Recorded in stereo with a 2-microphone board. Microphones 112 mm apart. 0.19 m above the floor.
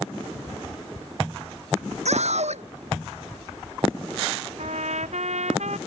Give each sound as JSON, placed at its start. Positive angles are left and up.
{"t": 2.0, "sound": "a scream", "side_deg": -75}
{"t": 4.6, "sound": "a trumpet", "side_deg": -85}